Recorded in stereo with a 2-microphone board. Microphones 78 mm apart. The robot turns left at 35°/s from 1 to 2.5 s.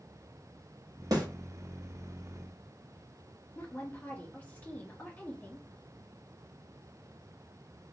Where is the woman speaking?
20° left (ahead or behind), 1.3 m.